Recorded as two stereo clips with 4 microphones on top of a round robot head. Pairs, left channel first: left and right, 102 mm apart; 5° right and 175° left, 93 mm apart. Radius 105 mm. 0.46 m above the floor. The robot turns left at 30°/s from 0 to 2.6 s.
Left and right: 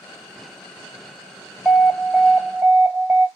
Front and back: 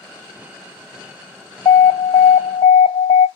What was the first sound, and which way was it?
An alarm, 5° left.